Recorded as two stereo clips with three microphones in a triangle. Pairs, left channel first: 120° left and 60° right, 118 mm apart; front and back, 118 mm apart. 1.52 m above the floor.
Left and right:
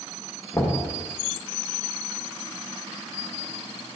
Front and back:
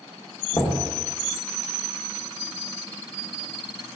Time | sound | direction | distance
0.5 | knocking | 45° left | 1.7 m